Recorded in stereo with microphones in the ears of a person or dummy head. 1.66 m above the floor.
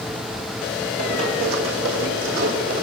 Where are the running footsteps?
45° right (ahead or behind), 4 m; by 2.8 s 65° right (ahead or behind), 4 m.